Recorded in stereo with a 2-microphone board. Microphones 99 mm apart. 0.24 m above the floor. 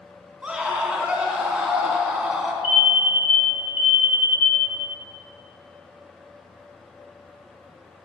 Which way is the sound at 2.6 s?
10° right (ahead or behind).